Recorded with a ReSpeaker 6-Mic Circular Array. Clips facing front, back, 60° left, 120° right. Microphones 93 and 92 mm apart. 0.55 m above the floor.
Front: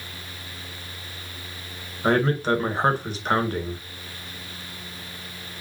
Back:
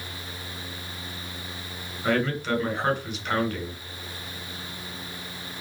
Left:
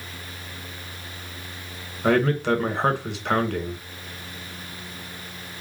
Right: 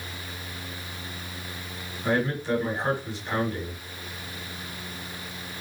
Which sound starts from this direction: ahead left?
A man speaking, at 2.0 s.